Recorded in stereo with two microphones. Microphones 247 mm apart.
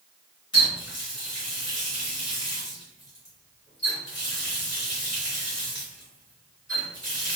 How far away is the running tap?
About 1.6 m.